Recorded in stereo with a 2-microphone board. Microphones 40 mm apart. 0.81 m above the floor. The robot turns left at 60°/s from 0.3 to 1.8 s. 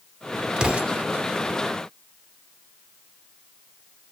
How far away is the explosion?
About 0.6 m.